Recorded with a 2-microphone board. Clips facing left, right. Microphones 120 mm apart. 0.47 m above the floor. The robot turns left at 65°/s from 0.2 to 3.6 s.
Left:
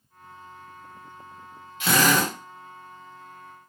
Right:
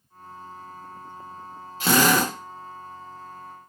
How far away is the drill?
About 0.8 m.